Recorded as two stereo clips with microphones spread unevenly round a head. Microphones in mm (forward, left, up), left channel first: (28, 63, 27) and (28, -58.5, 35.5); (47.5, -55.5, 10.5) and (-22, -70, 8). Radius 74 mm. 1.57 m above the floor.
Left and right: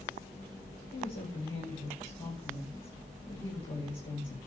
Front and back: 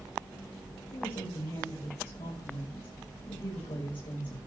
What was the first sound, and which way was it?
A woman speaking, 40° left.